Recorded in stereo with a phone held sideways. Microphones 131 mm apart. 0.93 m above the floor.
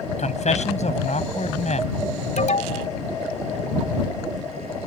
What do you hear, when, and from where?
0.2 s a man speaking: 65° left (ahead or behind)
2.4 s an alarm: 75° left (ahead or behind)